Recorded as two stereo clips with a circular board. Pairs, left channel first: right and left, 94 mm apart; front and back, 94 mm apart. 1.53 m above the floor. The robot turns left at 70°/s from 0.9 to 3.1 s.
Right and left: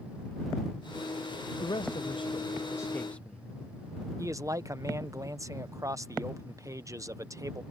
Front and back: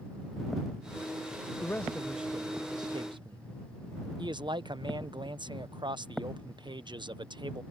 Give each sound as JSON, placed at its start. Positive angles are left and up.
{"t": 1.6, "sound": "a man speaking", "azimuth_deg": -60}
{"t": 4.2, "sound": "a man speaking", "azimuth_deg": 145}